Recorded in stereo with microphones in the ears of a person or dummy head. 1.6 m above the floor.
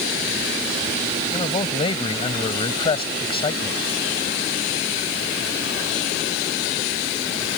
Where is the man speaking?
30° left (ahead or behind).